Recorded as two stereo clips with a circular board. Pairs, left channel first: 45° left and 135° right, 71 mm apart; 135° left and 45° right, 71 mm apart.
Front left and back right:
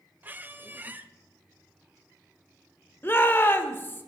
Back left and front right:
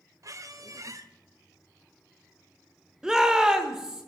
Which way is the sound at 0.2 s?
75° right.